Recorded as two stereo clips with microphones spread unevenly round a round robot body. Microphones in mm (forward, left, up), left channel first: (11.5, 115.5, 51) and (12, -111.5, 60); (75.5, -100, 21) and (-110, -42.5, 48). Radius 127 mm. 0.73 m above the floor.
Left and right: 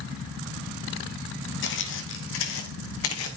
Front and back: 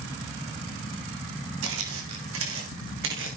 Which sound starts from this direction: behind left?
Footsteps, at 1.6 s.